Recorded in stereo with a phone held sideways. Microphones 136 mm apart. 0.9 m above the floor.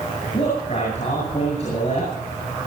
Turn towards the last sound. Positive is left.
turn(degrees=50)  # may be behind; listen again after turning